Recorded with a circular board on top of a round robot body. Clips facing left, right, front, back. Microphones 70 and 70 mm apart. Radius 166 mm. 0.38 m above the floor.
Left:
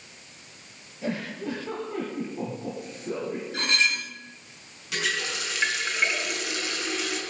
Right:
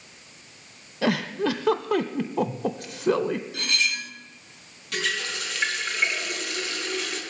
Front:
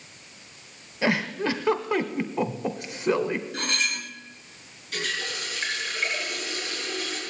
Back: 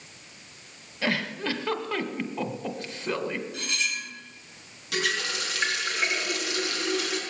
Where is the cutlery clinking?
35° left, 1.2 m.